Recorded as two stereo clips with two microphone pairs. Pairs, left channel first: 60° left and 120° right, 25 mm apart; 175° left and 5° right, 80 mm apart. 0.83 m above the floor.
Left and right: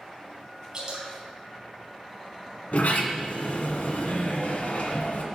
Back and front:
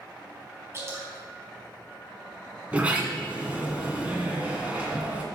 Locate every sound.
0.7 s dripping: 60° right, 4.5 m
2.7 s a sliding door: 65° left, 2 m